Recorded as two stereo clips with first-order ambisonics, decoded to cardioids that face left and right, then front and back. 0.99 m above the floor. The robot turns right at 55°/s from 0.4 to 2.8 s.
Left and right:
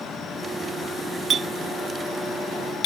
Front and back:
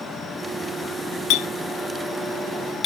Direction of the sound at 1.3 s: 25° right.